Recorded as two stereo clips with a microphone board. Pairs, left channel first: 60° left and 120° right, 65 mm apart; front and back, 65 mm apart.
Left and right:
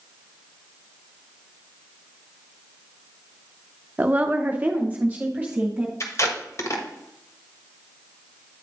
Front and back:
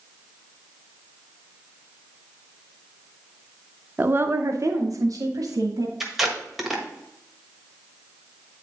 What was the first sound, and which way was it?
A woman speaking, 155° right.